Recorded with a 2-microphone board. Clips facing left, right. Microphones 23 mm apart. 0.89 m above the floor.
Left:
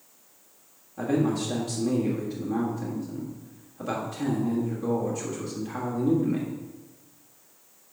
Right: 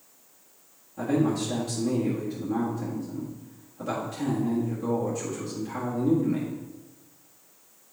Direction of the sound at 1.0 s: 10° right (ahead or behind).